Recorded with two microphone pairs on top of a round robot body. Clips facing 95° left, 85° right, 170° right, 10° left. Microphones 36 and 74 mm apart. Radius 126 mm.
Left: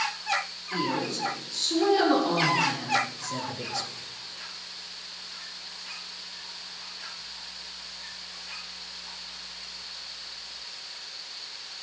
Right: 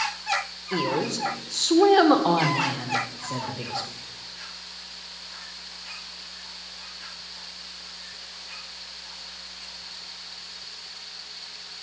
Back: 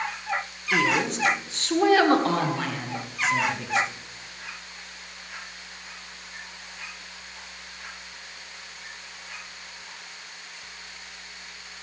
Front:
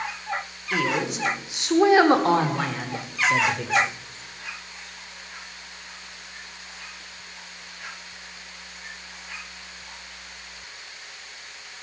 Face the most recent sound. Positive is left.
turn(degrees=-5)